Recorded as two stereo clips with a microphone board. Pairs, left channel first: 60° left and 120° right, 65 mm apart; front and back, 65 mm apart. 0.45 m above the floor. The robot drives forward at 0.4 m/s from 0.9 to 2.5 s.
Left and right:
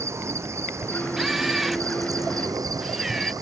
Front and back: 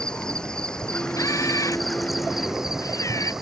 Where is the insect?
80° right; by 3.4 s 95° right.